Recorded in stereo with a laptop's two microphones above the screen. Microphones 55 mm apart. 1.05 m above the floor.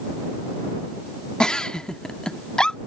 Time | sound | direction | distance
1.4 | a giggle | 15° left (ahead or behind) | ?